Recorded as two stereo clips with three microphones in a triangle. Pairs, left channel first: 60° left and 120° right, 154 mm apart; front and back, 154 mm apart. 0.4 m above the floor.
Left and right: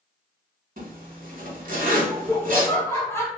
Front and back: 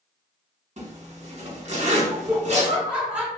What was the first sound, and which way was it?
A zipper, 140° right.